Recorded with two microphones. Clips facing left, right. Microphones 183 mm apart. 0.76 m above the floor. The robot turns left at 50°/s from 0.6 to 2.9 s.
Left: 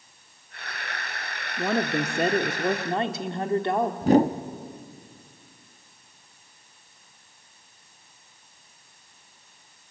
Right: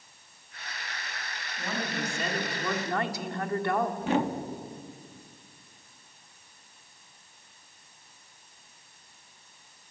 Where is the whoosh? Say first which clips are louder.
Left 13 dB; 35° left (ahead or behind), 0.8 m.